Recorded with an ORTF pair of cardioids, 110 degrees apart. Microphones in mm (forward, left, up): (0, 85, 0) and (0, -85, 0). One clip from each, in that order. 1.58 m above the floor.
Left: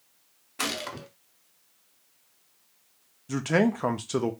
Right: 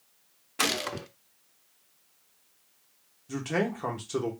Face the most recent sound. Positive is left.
turn(degrees=30)